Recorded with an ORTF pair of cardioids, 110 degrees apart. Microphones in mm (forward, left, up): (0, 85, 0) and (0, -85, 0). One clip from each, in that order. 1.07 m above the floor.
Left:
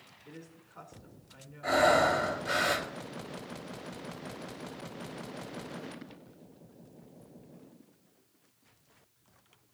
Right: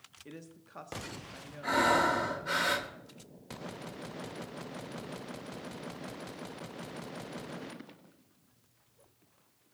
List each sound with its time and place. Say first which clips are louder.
0.2 s a woman speaking: right 1 dB; 65° right, 1.5 m
1.6 s breathing: left 2 dB; 15° right, 2 m